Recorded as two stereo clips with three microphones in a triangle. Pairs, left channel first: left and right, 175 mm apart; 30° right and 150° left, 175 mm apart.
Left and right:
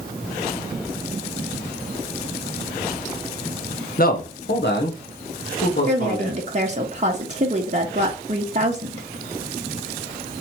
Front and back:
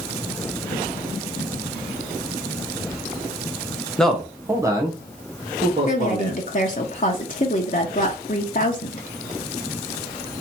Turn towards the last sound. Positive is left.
turn(degrees=-55)